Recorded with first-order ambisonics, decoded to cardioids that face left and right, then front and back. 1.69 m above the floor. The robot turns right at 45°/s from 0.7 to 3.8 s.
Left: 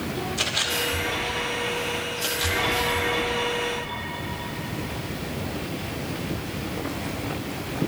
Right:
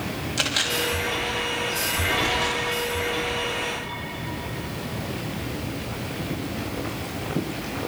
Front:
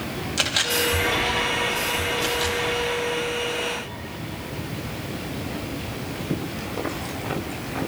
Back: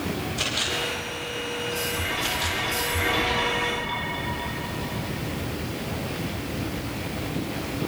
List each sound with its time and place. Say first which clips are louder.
0.4 s a camera shutter: right 2 dB, front 5 dB; 30° right, 4 m; by 2.6 s 50° left, 4 m